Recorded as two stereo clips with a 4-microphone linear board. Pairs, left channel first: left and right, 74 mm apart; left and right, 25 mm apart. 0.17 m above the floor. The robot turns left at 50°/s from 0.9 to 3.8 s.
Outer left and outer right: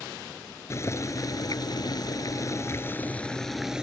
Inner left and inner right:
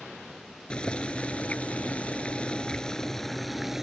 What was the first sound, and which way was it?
Boiling, 135° left.